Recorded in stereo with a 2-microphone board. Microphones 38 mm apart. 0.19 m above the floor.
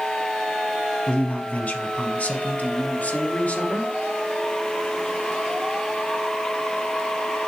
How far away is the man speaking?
About 1.2 m.